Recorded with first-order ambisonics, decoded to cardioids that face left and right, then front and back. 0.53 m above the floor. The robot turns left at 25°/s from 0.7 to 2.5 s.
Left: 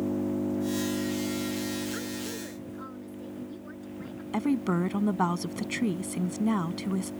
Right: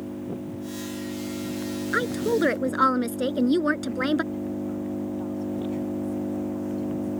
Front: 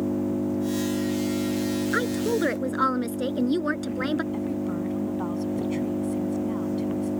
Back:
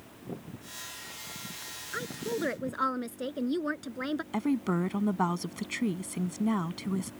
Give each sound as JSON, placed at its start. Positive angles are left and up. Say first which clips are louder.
{"t": 0.0, "sound": "an engine running", "louder": "left 4 dB, front 18 dB", "azimuth_deg": 15}
{"t": 1.9, "sound": "a woman speaking", "louder": "right 12 dB, front 7 dB", "azimuth_deg": -55}
{"t": 4.3, "sound": "a woman speaking", "louder": "left 3 dB, front 1 dB", "azimuth_deg": 115}